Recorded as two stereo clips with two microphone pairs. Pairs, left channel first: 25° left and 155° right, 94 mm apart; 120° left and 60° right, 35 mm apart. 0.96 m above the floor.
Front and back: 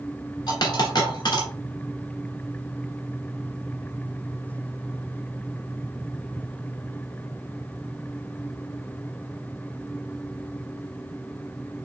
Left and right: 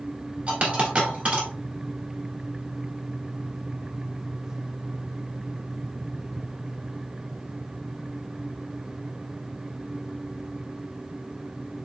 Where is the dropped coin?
10° right, 1.6 m.